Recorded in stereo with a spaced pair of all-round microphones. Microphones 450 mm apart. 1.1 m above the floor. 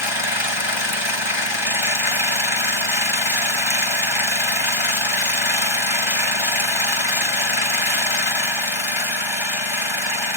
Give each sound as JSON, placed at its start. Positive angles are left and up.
{"t": 0.0, "sound": "an engine running", "side_deg": 80}